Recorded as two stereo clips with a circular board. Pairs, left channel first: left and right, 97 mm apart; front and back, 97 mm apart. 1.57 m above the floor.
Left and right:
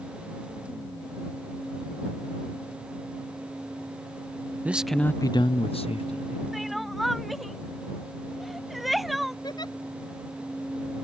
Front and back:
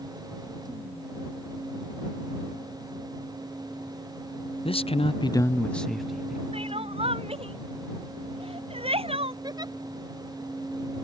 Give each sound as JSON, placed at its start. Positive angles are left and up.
{"t": 4.7, "sound": "a man speaking", "azimuth_deg": -15}
{"t": 6.5, "sound": "crying", "azimuth_deg": 180}
{"t": 9.4, "sound": "a giggle", "azimuth_deg": 135}